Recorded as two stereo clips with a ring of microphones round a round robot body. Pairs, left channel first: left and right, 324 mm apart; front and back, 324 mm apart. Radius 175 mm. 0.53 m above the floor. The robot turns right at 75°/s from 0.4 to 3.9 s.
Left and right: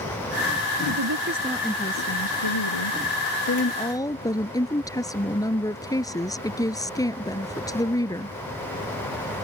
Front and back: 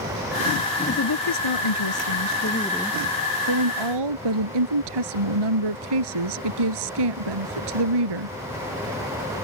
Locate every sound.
0.9 s a woman speaking: 60° right; by 8.4 s 170° left